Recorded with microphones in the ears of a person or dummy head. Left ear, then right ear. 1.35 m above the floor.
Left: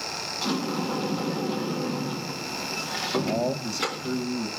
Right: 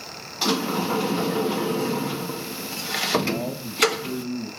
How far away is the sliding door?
About 1.7 m.